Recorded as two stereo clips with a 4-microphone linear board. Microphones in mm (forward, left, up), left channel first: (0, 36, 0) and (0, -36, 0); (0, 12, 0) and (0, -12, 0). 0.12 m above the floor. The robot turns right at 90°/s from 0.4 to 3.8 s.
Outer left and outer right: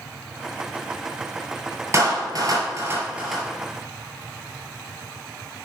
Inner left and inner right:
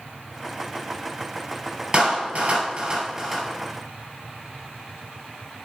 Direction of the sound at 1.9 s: 45° right (ahead or behind).